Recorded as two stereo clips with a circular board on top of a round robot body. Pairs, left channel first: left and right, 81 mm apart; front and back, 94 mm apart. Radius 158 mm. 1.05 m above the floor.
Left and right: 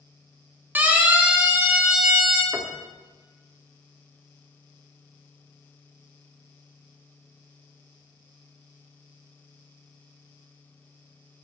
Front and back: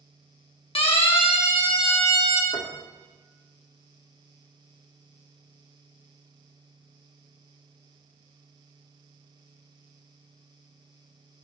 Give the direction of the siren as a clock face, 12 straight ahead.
1 o'clock.